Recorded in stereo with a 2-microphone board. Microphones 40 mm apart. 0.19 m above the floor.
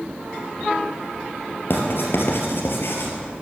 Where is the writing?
65° left (ahead or behind), 2.5 m.